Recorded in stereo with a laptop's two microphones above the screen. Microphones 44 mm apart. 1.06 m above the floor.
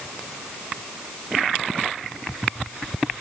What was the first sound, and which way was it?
Only background noise.